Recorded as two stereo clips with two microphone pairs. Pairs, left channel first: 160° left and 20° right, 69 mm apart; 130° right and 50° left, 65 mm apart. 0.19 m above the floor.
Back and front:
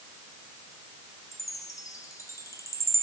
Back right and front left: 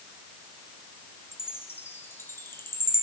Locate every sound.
1.3 s a chime: 175° right, 2.0 m